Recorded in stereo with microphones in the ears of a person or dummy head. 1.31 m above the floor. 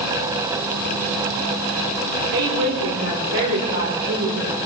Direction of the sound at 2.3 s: 80° right.